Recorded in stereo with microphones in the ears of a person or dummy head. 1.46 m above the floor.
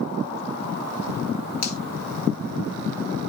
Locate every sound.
1.6 s a finger snap: 80° left, 4.5 m